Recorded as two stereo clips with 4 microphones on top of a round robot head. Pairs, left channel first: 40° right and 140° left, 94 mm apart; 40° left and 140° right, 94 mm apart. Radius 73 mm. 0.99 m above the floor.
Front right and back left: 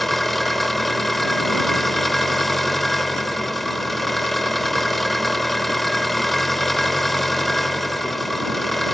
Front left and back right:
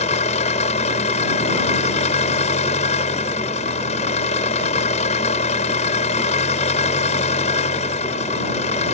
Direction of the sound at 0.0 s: 50° left.